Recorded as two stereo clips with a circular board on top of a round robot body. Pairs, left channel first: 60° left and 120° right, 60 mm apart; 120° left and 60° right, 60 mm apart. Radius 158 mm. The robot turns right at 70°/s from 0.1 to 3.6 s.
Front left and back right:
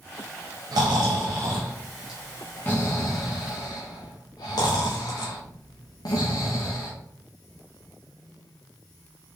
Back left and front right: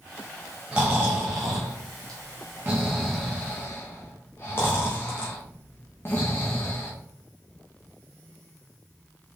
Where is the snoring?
140° right, 0.6 m; by 6.9 s 65° left, 0.6 m.